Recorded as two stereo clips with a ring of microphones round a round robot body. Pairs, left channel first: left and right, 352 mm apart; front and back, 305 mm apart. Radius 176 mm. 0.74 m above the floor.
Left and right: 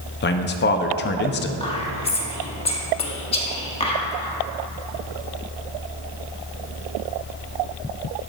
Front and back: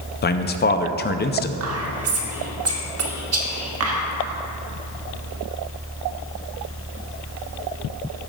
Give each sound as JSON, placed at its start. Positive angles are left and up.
{"t": 0.2, "sound": "a man speaking", "azimuth_deg": 45, "distance_m": 0.6}
{"t": 1.6, "sound": "whispering", "azimuth_deg": 160, "distance_m": 1.5}